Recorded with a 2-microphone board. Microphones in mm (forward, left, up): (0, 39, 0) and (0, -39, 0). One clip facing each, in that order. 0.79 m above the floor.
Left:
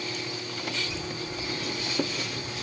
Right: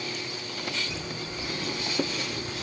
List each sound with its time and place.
0.9 s footsteps: 5° left (ahead or behind), 0.9 m; by 2.6 s 35° right (ahead or behind), 2.5 m